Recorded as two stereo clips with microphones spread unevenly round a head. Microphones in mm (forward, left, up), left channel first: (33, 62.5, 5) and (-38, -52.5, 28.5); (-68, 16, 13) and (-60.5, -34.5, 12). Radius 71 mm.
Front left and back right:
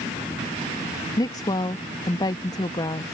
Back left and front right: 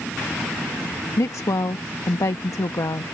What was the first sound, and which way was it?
A woman speaking, 120° left.